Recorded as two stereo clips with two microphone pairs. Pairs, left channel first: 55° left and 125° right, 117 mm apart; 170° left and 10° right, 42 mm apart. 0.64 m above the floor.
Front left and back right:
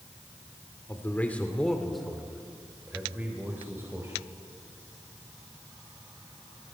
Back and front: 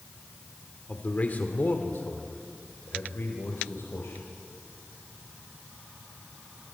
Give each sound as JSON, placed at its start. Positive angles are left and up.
{"t": 0.9, "sound": "a man speaking", "azimuth_deg": 120, "distance_m": 1.9}